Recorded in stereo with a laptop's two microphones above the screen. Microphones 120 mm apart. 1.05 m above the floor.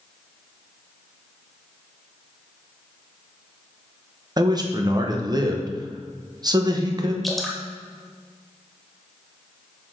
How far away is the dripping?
About 0.9 m.